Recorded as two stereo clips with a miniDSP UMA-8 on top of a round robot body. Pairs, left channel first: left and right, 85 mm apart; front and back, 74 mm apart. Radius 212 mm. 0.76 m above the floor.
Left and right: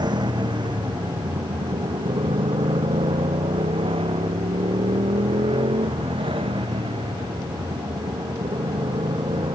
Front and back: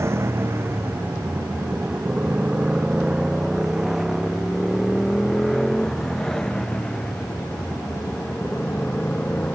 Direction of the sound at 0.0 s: 125° right.